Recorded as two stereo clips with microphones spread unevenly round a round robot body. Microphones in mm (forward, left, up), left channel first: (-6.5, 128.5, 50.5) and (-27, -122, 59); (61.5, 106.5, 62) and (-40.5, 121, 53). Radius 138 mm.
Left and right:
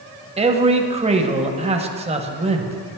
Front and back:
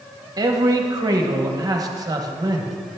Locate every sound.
0.4 s a man speaking: 155° right, 0.8 m